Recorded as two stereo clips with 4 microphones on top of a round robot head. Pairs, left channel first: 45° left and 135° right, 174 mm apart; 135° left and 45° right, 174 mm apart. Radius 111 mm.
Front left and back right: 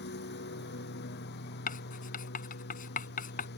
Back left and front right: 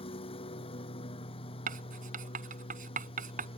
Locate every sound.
0.0 s a lawn mower: 75° left
1.7 s writing: straight ahead